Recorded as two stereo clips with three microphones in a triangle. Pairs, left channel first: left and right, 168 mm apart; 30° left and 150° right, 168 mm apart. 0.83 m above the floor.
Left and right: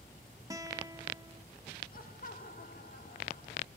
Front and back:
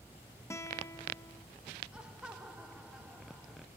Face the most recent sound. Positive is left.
turn(degrees=125)